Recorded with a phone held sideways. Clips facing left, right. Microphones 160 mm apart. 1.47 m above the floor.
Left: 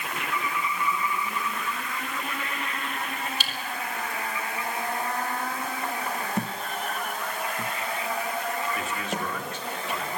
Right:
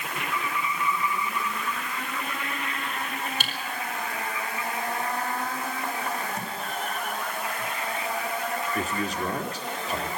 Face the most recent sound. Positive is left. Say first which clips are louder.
# right 2 dB
turn(degrees=-40)  # may be behind; listen again after turning